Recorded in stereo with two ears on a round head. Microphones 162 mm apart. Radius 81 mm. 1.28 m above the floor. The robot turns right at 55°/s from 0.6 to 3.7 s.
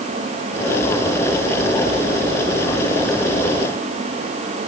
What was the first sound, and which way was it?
Only background noise.